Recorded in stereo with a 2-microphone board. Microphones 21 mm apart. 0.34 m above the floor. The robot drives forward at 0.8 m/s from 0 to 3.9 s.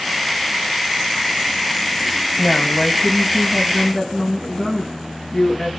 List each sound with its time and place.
2.4 s a woman speaking: 50° left (ahead or behind), 2.5 m; by 5.7 s 35° left (ahead or behind), 3 m